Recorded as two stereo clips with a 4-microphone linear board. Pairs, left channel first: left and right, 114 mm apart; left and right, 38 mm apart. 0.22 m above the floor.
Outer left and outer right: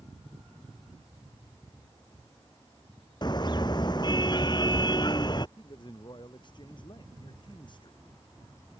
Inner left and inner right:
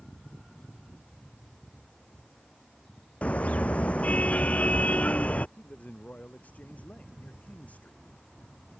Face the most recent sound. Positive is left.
turn(degrees=40)  # may be behind; listen again after turning